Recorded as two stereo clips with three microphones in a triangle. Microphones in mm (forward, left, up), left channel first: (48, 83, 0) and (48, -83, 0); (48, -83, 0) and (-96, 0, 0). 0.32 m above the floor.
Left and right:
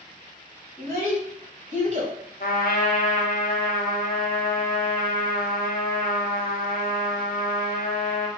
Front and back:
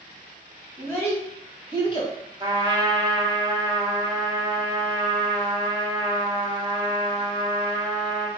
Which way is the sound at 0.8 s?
105° right.